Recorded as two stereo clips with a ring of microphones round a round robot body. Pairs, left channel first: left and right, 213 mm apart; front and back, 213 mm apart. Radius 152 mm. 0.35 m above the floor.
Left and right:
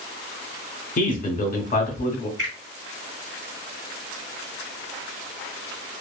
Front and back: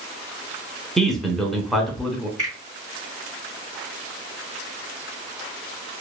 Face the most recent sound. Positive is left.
turn(degrees=-125)